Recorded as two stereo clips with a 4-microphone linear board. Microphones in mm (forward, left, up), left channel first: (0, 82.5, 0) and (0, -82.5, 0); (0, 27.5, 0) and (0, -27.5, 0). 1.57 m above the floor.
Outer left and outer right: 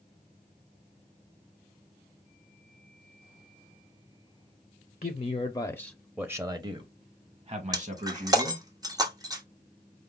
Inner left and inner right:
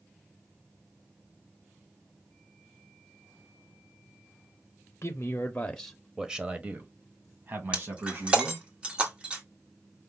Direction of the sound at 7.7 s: 25° right (ahead or behind).